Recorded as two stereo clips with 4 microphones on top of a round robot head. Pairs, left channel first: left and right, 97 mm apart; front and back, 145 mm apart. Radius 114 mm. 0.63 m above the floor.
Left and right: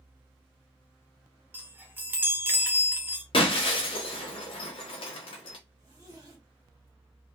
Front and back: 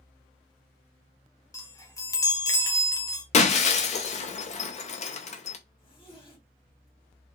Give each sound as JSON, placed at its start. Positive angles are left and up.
{"t": 1.5, "sound": "a chime", "azimuth_deg": -45, "distance_m": 1.1}
{"t": 3.3, "sound": "breaking glass", "azimuth_deg": 40, "distance_m": 0.8}
{"t": 5.8, "sound": "a zipper", "azimuth_deg": -50, "distance_m": 2.5}